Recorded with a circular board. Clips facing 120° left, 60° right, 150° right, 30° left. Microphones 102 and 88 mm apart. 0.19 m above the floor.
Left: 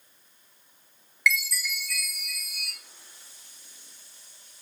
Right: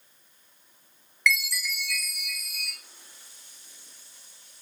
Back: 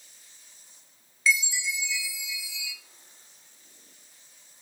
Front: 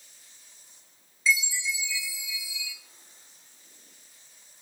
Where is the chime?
155° right, 0.8 m.